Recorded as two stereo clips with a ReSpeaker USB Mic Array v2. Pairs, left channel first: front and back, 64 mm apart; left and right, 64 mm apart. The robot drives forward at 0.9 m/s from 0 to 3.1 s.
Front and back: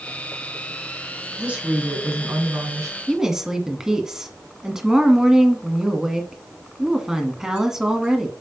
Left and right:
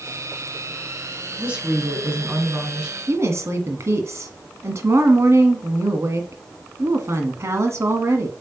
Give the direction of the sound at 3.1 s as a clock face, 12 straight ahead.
3 o'clock.